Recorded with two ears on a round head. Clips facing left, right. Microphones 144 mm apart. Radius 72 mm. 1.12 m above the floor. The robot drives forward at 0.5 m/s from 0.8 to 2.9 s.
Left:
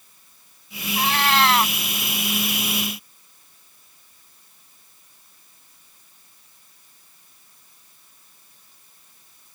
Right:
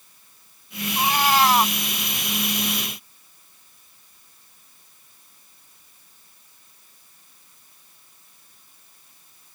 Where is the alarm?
I don't hear an alarm.